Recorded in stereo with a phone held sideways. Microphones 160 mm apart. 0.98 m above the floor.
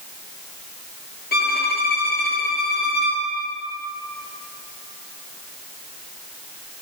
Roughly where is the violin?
Left.